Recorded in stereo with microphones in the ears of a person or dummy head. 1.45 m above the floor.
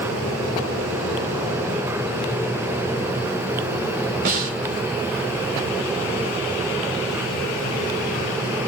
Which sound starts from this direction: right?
A snare drum, at 4.2 s.